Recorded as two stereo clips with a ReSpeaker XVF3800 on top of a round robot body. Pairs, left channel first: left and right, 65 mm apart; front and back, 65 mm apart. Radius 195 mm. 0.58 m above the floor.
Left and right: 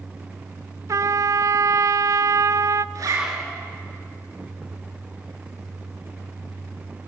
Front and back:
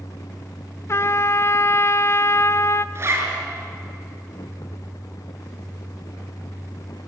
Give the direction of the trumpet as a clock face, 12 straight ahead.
2 o'clock.